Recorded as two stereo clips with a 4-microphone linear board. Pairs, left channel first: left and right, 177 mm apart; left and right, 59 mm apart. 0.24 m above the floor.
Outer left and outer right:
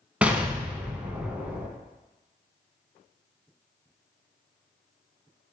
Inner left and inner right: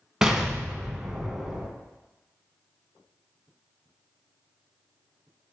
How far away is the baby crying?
I don't hear a baby crying.